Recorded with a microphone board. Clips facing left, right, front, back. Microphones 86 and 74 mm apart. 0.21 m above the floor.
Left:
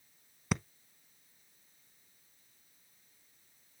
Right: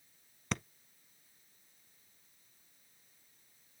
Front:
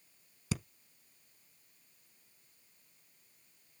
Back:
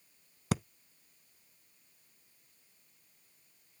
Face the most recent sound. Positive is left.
turn(degrees=170)